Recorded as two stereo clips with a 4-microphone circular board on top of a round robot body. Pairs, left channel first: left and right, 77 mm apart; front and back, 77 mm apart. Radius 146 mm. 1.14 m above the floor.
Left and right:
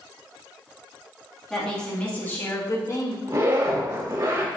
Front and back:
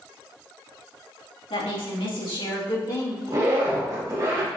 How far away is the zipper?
About 2.5 m.